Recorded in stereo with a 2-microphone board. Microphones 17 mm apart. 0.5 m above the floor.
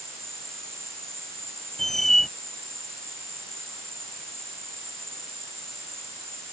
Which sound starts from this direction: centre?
A squeak, at 1.8 s.